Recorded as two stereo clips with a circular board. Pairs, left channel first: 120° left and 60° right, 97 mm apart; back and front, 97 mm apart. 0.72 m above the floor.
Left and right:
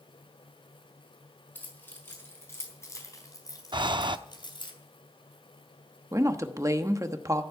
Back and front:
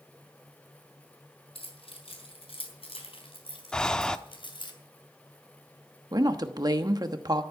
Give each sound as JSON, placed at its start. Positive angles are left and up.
{"t": 1.6, "sound": "keys jangling", "azimuth_deg": -170, "distance_m": 5.0}
{"t": 3.7, "sound": "breathing", "azimuth_deg": -95, "distance_m": 0.5}
{"t": 6.1, "sound": "a woman speaking", "azimuth_deg": -20, "distance_m": 1.0}